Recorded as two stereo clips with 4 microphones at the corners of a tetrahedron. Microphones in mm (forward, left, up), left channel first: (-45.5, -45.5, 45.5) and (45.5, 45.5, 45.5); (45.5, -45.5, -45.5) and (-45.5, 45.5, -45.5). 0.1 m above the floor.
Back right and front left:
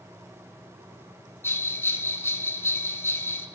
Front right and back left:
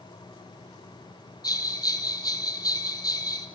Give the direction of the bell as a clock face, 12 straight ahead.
2 o'clock.